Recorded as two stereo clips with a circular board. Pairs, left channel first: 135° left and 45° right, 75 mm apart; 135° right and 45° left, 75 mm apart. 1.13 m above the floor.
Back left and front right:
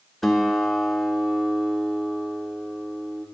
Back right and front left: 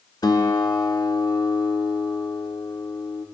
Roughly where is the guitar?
Behind right.